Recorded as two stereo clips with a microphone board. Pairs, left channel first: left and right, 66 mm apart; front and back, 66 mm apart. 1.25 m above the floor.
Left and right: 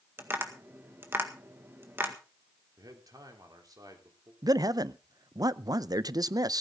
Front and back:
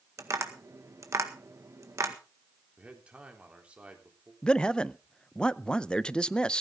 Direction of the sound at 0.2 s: 140° right.